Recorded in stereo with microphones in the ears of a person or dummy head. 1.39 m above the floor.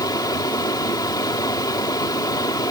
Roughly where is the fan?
Centre.